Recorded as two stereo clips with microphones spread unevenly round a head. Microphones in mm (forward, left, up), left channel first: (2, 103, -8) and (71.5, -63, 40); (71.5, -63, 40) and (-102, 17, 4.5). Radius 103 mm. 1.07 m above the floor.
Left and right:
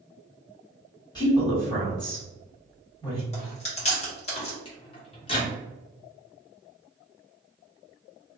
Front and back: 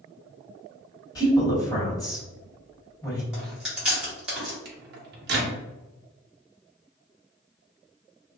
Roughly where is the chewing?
Left.